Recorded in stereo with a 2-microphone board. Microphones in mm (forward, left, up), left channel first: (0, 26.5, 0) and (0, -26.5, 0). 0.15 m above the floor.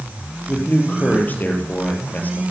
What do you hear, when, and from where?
0.5 s a man speaking: 30° left (ahead or behind), 3.5 m